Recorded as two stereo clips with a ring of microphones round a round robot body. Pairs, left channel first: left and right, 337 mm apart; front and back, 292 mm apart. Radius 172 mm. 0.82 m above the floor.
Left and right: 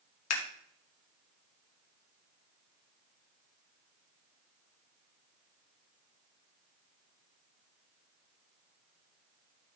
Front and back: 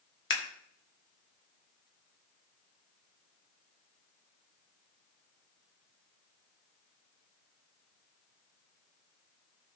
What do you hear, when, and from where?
0.3 s scissors: 45° left, 2 m